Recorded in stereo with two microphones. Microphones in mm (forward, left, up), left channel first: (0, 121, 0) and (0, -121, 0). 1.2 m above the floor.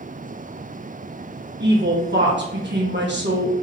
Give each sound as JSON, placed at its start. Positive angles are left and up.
{"t": 1.6, "sound": "a woman speaking", "side_deg": -45, "distance_m": 1.0}